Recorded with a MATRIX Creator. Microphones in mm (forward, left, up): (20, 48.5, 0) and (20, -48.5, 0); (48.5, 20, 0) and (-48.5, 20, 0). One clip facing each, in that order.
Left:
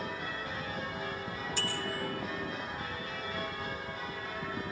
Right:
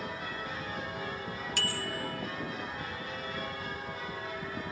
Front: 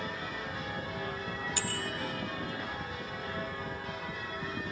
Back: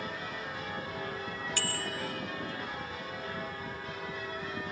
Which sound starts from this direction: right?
A bicycle bell, at 1.6 s.